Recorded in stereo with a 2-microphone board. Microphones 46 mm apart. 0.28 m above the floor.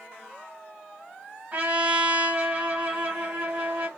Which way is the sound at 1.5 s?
35° right (ahead or behind).